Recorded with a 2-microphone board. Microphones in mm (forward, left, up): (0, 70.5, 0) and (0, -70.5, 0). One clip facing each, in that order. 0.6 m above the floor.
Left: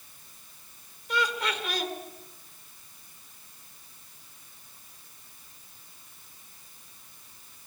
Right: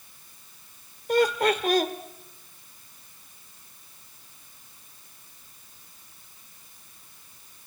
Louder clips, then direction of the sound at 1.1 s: Right 9 dB; 55° right (ahead or behind).